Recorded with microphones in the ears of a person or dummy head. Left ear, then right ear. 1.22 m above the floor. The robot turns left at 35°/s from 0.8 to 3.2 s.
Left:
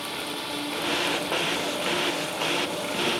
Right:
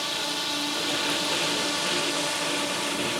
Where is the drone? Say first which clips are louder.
Right 4 dB; 30° right; by 3.2 s 115° right.